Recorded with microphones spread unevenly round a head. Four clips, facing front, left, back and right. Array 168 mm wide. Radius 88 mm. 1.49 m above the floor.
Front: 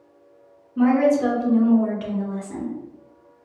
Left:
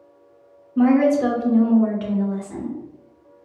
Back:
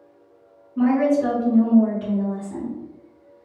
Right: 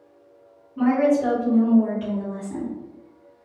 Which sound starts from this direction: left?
A woman speaking, at 0.8 s.